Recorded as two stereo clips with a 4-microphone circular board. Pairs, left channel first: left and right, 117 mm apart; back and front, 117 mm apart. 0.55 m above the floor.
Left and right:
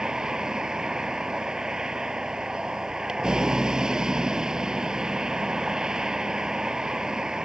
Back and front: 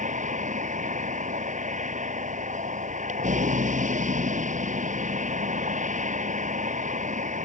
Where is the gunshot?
I don't hear a gunshot.